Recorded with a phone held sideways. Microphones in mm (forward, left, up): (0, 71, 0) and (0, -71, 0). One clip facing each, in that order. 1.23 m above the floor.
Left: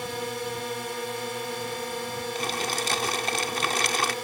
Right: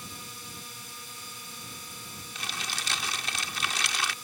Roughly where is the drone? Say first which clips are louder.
Left 16 dB; left.